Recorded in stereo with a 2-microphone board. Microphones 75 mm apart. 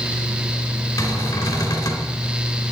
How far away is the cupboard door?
About 2 m.